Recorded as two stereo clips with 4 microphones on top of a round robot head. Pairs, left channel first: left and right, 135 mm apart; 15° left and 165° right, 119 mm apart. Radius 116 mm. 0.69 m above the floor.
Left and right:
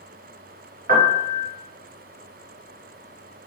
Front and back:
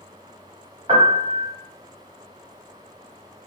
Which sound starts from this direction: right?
A piano, at 0.9 s.